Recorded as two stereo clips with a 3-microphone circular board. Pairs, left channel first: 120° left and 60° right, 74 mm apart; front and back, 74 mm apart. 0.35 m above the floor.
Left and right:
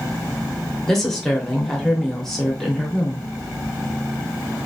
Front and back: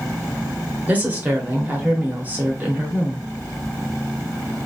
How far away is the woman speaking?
About 0.8 m.